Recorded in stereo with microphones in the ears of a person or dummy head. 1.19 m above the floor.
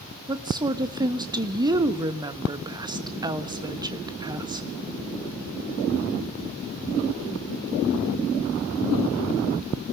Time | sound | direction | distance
0.3 | a woman speaking | 25° right (ahead or behind) | 1.5 m